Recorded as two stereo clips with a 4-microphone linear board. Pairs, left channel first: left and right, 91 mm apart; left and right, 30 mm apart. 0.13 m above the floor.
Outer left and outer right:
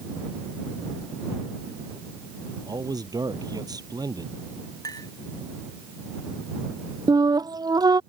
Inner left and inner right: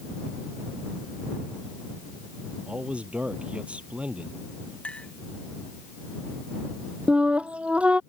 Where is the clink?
45° left (ahead or behind).